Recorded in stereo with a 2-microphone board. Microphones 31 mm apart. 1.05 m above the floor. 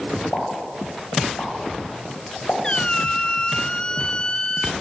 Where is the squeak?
30° left (ahead or behind), 0.9 m.